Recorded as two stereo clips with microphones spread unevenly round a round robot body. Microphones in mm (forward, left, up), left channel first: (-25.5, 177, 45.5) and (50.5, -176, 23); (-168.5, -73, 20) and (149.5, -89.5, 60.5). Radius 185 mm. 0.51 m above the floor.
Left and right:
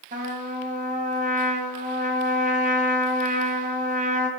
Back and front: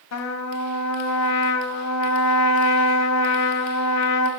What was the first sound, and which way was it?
A trumpet, 145° right.